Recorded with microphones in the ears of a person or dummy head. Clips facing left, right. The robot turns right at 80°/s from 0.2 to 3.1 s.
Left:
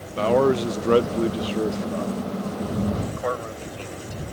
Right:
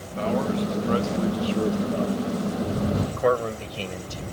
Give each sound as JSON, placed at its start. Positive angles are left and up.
{"t": 0.2, "sound": "a man speaking", "azimuth_deg": 55}
{"t": 3.1, "sound": "a man speaking", "side_deg": -40}